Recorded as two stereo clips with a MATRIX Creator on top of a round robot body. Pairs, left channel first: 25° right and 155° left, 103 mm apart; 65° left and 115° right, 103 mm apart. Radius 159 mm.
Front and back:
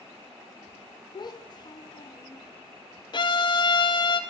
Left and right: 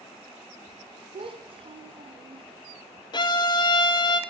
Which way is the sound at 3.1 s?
20° left.